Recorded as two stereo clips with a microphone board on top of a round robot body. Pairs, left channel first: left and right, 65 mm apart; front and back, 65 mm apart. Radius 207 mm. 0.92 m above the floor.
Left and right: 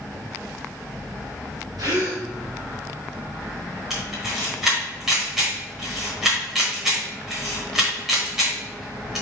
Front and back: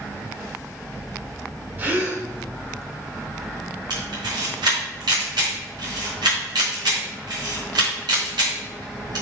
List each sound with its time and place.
1.8 s a gasp: 115° right, 2.0 m
3.9 s a camera shutter: 175° right, 1.1 m